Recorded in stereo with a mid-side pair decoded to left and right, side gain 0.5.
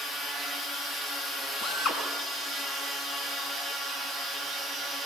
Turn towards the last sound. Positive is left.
turn(degrees=50)